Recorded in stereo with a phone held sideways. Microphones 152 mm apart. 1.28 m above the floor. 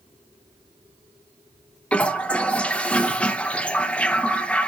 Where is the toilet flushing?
5° left (ahead or behind), 0.7 m.